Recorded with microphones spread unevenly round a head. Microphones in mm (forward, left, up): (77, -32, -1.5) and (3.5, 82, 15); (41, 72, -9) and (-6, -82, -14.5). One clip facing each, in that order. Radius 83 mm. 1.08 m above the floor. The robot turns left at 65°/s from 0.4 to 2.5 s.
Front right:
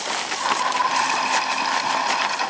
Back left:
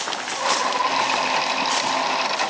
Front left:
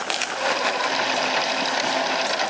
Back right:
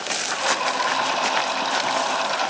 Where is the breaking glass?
I don't hear breaking glass.